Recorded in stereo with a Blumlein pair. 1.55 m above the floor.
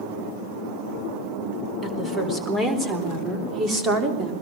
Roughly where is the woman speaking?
Ahead.